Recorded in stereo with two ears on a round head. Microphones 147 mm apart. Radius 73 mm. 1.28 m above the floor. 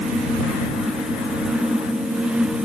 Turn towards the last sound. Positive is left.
No sound to turn to.